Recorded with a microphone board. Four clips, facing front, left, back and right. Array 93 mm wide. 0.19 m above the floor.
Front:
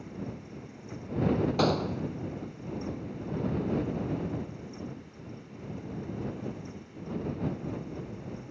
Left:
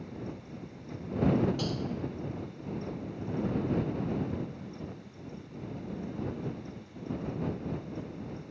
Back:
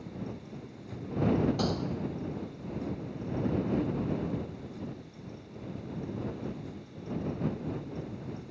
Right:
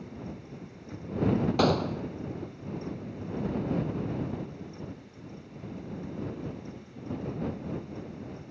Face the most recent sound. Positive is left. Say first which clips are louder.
# right 8 dB, front 4 dB
turn(degrees=-60)